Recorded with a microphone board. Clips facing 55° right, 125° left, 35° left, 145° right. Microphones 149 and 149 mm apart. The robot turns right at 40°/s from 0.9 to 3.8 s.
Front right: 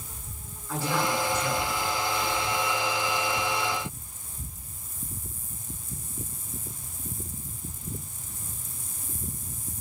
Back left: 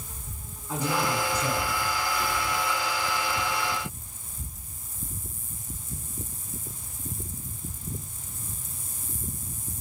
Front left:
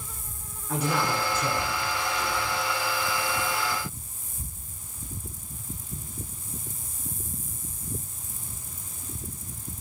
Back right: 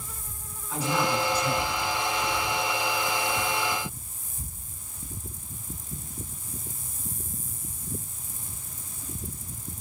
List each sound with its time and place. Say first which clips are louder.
0.7 s a man speaking: even, even; 55° left, 7 m; by 2.6 s 120° left, 7 m